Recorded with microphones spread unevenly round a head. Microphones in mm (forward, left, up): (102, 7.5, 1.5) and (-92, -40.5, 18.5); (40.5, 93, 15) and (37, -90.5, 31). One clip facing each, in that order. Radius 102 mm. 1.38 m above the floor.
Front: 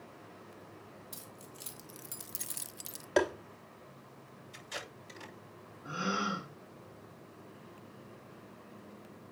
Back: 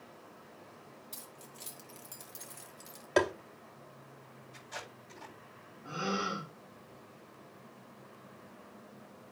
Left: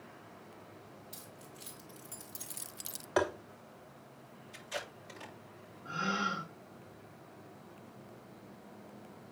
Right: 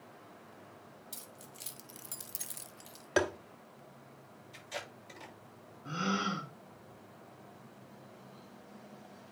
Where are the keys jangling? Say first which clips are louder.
Front 1 dB, left 1 dB; 70° right, 2.5 m; by 3.1 s 75° left, 0.8 m.